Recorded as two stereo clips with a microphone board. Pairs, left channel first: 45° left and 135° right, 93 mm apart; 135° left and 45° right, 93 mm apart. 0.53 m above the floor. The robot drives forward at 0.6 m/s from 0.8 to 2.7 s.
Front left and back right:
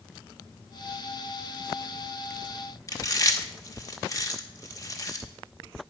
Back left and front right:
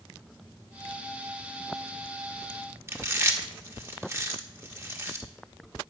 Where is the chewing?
10° left, 1.0 m.